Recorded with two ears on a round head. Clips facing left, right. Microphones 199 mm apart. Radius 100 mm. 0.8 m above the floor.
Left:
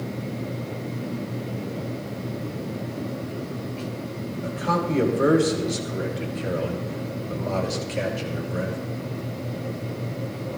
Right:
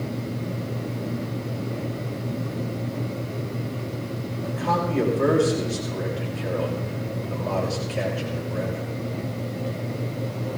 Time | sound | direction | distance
4.4 | a man speaking | 25° left (ahead or behind) | 5.5 m